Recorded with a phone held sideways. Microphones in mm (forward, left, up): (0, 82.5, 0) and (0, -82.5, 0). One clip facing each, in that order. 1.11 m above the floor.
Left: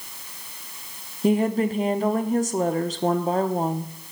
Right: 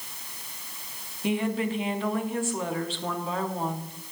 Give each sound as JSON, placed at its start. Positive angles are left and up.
{"t": 1.2, "sound": "a woman speaking", "side_deg": 40, "distance_m": 0.6}